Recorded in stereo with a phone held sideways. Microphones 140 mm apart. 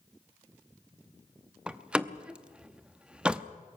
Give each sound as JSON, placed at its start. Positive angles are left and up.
{"t": 1.7, "sound": "a door slam", "side_deg": -5, "distance_m": 0.8}